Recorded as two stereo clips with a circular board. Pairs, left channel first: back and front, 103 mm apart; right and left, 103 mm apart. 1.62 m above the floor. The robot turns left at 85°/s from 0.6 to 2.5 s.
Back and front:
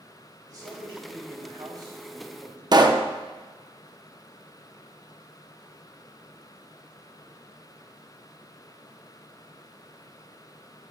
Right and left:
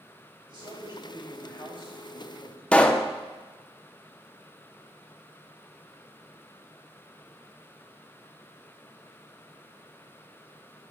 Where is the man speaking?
55° left, 3 m; by 2.6 s 110° right, 3 m.